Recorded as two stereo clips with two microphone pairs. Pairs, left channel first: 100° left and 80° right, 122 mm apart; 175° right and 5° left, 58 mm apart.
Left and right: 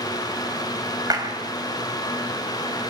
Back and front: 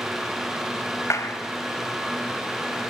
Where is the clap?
140° right, 5 m.